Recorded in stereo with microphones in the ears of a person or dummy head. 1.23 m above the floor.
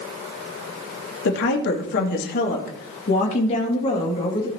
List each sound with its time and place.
1.2 s a woman speaking: 70° left (ahead or behind), 2.5 m; by 4.5 s 25° left (ahead or behind), 2 m